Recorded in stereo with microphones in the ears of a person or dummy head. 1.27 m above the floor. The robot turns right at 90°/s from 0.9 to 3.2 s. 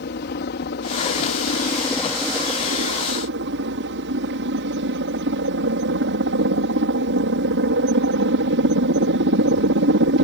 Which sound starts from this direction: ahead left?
A helicopter, at 0.0 s.